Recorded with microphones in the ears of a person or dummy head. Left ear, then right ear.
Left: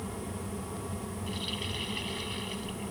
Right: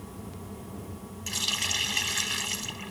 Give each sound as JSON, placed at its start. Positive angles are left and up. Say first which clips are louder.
{"t": 1.3, "sound": "a running tap", "louder": "right 9 dB", "side_deg": -55}